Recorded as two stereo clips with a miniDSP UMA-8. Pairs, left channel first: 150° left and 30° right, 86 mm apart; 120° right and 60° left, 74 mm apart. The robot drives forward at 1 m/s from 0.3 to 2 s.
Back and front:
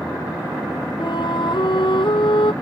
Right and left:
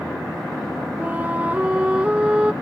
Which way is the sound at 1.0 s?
130° left.